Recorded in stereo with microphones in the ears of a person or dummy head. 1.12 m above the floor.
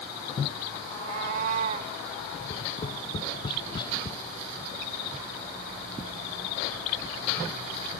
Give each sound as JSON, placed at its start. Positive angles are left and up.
{"t": 0.8, "sound": "a cat meowing", "side_deg": -75}
{"t": 2.3, "sound": "tapping", "side_deg": 30}